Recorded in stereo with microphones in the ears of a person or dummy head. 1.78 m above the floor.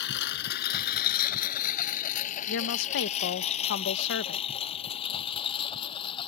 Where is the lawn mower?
60° left (ahead or behind); by 6.3 s 25° left (ahead or behind).